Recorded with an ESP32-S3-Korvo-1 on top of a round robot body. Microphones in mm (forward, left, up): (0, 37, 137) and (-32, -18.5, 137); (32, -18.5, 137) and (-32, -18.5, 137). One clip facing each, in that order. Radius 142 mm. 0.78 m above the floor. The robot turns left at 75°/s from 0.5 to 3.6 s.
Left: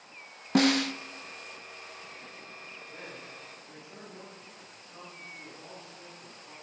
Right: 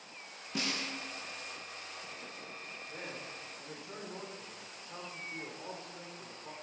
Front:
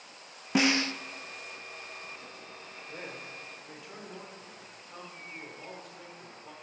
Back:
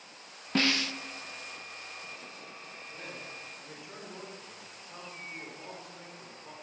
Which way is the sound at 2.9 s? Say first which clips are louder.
Right 2 dB, front 2 dB; 40° right.